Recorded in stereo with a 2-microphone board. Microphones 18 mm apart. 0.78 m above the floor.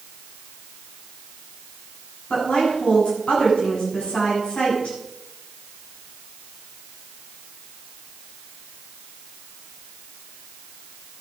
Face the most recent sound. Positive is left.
turn(degrees=85)